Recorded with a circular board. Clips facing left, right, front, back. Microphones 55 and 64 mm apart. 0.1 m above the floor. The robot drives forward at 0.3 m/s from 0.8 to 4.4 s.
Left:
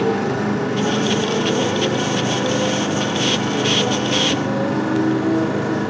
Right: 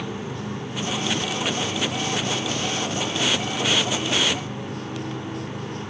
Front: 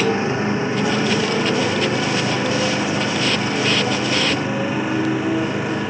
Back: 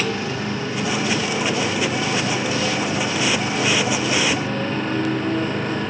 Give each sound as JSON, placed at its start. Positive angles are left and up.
{"t": 0.0, "sound": "a motorcycle", "azimuth_deg": 65}